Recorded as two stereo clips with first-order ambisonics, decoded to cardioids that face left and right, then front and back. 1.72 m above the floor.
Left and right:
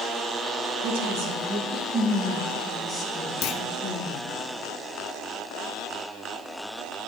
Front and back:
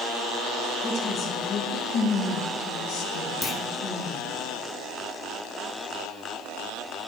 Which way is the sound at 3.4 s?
70° left.